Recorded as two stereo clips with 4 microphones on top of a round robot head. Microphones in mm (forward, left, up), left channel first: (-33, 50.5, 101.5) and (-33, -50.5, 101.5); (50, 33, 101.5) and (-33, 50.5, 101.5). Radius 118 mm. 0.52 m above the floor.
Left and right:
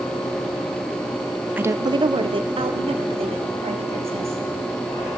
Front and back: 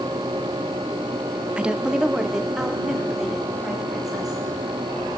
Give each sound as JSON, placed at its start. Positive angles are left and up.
{"t": 1.6, "sound": "a woman speaking", "azimuth_deg": -135, "distance_m": 0.8}